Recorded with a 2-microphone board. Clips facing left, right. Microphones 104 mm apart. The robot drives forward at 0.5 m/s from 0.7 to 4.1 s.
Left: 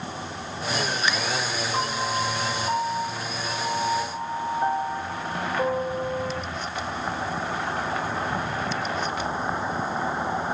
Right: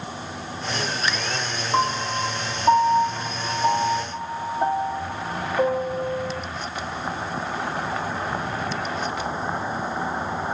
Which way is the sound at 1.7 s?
50° right (ahead or behind).